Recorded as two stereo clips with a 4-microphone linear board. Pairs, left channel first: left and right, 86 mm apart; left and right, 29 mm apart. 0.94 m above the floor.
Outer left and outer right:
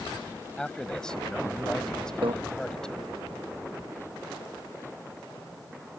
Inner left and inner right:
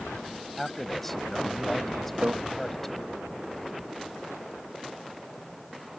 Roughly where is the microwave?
Right.